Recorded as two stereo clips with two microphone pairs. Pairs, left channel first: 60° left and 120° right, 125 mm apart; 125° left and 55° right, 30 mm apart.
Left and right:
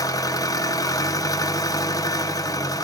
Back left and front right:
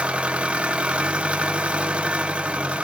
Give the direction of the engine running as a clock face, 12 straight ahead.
12 o'clock.